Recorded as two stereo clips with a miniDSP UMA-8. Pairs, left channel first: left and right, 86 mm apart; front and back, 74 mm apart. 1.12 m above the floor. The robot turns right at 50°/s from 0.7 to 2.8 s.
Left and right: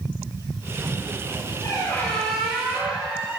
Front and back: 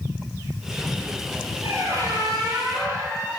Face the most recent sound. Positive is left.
turn(degrees=-160)